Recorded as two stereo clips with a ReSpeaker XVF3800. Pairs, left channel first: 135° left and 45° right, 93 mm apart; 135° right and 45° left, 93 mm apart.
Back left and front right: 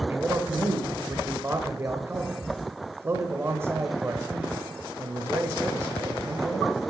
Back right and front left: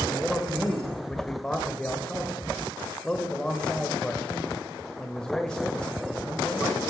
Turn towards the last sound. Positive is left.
turn(degrees=-65)